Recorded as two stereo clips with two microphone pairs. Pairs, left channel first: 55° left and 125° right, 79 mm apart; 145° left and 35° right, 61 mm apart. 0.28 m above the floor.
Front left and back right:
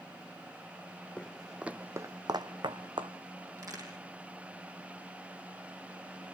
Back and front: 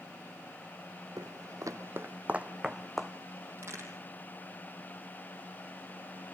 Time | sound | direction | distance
1.2 | footsteps | 20° right | 0.8 m
3.6 | a crack | 80° right | 4.5 m